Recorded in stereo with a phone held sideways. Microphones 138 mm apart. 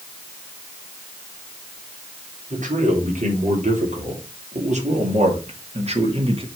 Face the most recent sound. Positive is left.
turn(degrees=-45)  # may be behind; listen again after turning